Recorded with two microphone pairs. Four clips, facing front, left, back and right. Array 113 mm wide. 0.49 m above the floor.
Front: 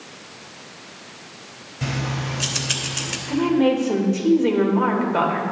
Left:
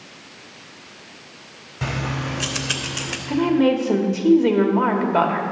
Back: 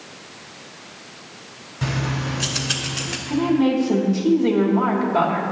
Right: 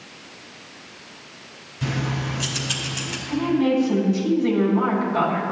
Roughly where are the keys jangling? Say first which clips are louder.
Even, back 2 dB; left.